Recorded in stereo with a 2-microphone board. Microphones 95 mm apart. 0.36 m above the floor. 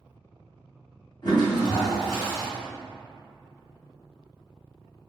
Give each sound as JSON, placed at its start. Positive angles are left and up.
{"t": 1.2, "sound": "a toilet flushing", "side_deg": 50, "distance_m": 1.9}